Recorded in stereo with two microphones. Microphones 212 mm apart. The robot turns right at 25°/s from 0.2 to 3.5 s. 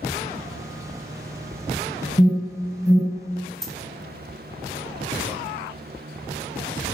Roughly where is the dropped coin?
Centre.